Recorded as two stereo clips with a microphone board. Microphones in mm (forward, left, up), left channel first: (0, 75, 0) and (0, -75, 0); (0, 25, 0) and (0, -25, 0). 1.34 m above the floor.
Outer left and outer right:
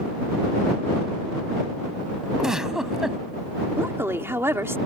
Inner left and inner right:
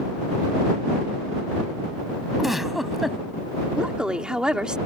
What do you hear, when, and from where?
2.4 s a giggle: 5° right (ahead or behind)
3.8 s a woman speaking: 15° right (ahead or behind)